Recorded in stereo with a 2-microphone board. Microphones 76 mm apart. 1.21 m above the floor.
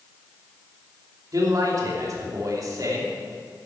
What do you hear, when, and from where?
1.3 s a man speaking: 50° right (ahead or behind), 2.5 m